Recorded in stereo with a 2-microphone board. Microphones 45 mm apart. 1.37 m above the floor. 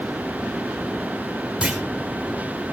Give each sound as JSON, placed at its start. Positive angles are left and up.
{"t": 1.6, "sound": "a clunk", "side_deg": -25, "distance_m": 3.0}